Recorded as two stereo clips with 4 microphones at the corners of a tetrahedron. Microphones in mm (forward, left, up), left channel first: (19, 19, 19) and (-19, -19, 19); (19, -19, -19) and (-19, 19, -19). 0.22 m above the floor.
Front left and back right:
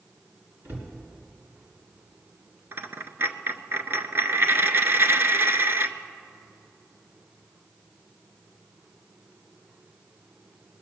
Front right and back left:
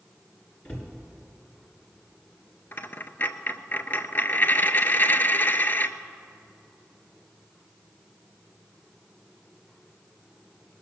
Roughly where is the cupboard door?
Right.